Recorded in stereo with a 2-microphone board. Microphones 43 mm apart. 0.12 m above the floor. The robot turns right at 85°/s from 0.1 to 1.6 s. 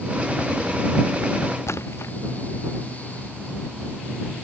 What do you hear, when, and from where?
1.7 s a splash: 75° left (ahead or behind)